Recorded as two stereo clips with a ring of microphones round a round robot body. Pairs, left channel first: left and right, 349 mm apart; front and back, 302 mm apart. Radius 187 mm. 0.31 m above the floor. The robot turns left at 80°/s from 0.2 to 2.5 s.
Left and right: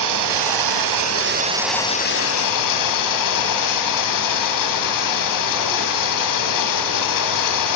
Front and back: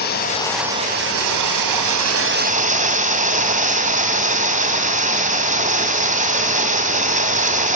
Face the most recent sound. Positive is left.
turn(degrees=115)